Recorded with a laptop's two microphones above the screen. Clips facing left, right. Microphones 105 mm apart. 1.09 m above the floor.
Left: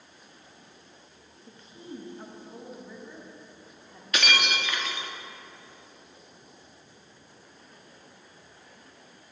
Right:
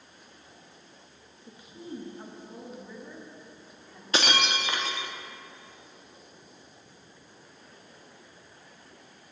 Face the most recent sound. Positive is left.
turn(degrees=-30)  # may be behind; listen again after turning